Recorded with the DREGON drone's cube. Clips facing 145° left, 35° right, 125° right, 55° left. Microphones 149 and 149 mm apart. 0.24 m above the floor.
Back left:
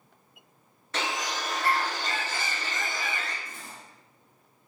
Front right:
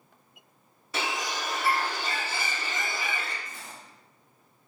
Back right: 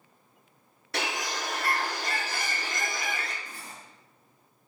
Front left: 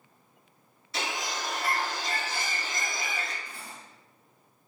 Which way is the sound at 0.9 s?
115° right.